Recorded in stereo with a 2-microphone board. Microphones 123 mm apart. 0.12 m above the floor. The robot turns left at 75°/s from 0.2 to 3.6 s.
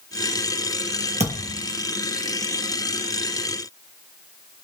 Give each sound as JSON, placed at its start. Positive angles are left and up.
{"t": 1.2, "sound": "a thud", "azimuth_deg": -90, "distance_m": 1.3}